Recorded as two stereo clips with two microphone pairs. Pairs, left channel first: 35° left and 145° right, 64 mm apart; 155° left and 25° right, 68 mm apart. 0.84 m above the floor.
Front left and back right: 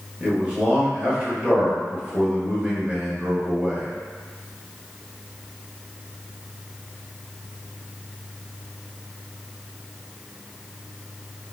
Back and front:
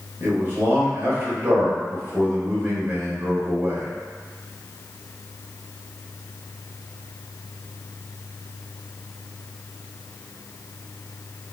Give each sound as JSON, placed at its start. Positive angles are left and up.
{"t": 0.2, "sound": "a man speaking", "azimuth_deg": -75, "distance_m": 1.3}